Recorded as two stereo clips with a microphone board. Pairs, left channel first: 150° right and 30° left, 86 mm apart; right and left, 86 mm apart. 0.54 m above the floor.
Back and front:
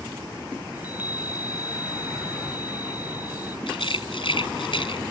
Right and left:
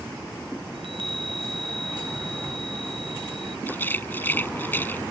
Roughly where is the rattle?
Behind.